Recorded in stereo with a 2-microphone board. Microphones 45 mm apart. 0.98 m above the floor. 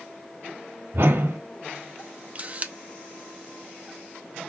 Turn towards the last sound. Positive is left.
turn(degrees=-35)  # may be behind; listen again after turning